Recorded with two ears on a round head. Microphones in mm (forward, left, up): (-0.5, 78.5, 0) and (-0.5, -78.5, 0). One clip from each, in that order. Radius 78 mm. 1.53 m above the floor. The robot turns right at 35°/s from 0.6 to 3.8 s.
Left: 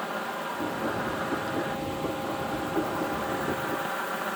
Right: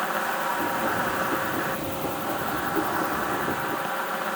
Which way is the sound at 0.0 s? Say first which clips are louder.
Right 6 dB; 125° right.